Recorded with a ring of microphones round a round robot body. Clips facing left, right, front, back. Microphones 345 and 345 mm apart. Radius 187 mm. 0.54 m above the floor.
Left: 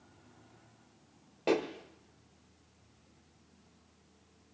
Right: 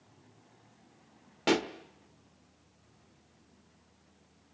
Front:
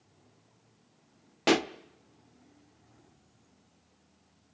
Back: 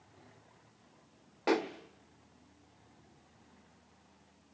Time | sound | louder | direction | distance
1.5 | a pop | right 1 dB, front 4 dB | 30° right | 1.1 m